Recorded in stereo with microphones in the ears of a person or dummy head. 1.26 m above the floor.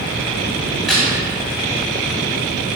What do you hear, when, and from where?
0.7 s a crack: centre (ahead or behind), 1.6 m